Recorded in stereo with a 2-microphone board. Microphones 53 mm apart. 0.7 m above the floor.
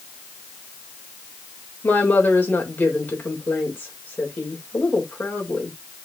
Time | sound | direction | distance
1.8 | a woman speaking | 30° left (ahead or behind) | 3 m